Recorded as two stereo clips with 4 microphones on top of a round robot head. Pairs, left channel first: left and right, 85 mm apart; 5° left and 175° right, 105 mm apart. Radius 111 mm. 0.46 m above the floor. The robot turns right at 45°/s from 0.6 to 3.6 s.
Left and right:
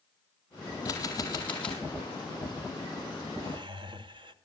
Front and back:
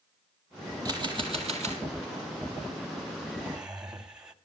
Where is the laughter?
100° right, 2.5 m; by 4.3 s 90° right, 2.5 m.